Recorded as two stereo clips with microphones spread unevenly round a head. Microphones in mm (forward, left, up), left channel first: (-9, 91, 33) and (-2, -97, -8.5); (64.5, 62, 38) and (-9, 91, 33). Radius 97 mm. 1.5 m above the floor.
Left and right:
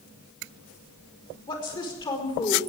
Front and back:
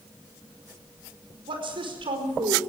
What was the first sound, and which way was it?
A woman speaking, 160° left.